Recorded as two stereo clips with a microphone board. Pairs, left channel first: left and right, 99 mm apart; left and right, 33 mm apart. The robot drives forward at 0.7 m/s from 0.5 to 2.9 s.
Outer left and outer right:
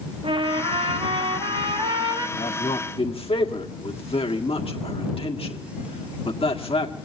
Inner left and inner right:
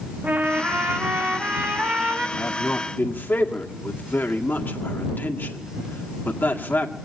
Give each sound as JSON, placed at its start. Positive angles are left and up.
{"t": 0.2, "sound": "a trumpet", "side_deg": -60, "distance_m": 1.4}
{"t": 2.4, "sound": "a man speaking", "side_deg": 70, "distance_m": 1.9}